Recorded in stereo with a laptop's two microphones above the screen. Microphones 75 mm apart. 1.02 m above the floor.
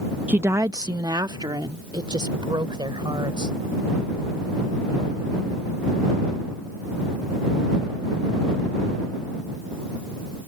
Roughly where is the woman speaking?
Right.